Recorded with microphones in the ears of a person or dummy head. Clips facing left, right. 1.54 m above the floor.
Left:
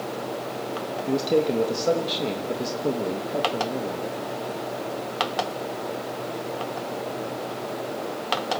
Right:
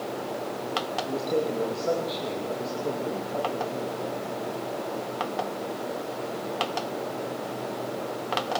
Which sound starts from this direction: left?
A man speaking, at 1.1 s.